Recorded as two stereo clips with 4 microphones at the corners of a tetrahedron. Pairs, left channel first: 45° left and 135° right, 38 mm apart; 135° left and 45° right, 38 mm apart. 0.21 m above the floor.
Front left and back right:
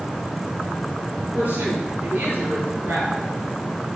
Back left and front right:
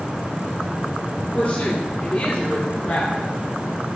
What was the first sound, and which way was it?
A woman speaking, straight behind.